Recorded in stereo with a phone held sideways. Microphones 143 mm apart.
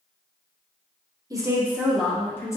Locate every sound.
1.3 s a woman speaking: 25° right (ahead or behind), 0.8 m; by 2.6 s 20° left (ahead or behind), 0.9 m